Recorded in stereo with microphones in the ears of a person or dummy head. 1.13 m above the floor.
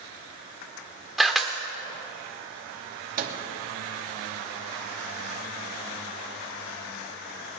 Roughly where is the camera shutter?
Centre.